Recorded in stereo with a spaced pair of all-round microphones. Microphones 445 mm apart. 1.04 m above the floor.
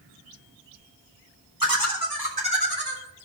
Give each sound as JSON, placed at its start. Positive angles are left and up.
{"t": 1.6, "sound": "laughter", "side_deg": -50, "distance_m": 3.5}